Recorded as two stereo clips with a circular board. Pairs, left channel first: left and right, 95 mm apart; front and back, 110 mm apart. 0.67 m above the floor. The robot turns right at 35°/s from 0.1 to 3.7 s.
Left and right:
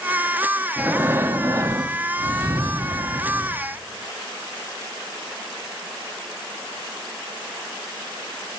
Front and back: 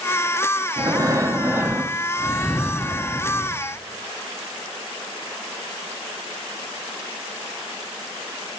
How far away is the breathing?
About 0.9 m.